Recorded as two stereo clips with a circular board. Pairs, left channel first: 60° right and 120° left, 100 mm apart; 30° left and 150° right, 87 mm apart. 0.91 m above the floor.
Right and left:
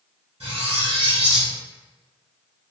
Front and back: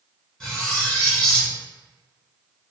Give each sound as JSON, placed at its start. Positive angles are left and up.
{"t": 0.4, "sound": "cutlery clinking", "azimuth_deg": 115, "distance_m": 1.4}